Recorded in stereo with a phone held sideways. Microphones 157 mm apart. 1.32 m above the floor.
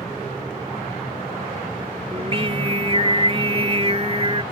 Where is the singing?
35° right (ahead or behind).